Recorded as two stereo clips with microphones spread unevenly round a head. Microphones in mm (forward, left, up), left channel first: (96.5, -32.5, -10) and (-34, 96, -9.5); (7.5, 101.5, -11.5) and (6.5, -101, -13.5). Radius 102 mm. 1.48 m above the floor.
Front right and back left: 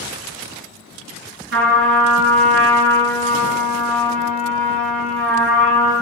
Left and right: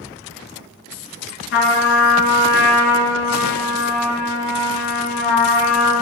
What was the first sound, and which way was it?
A trumpet, 120° left.